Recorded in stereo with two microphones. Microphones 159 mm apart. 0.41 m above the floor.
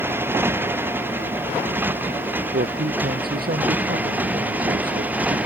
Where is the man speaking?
75° right (ahead or behind).